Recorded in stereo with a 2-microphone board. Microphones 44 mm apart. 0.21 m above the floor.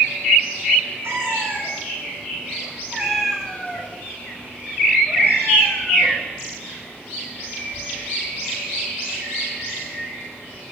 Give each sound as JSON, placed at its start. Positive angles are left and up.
{"t": 1.0, "sound": "a cat meowing", "side_deg": -60, "distance_m": 1.7}